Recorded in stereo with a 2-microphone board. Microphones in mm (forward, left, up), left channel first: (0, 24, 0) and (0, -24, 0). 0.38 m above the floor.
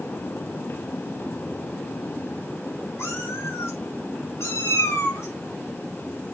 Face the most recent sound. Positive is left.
turn(degrees=85)